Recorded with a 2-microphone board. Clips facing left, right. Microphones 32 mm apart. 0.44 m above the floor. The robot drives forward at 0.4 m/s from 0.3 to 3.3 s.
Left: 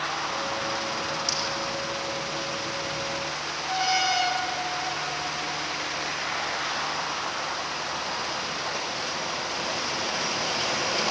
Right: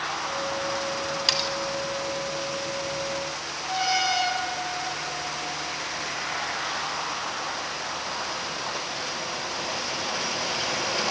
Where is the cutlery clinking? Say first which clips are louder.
Right 4 dB; 70° right (ahead or behind), 1.9 m.